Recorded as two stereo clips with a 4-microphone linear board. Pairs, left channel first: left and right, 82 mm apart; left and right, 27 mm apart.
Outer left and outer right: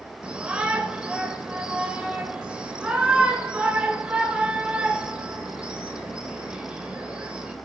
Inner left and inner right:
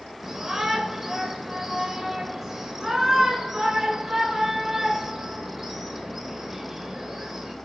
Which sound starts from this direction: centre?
A shout, at 0.2 s.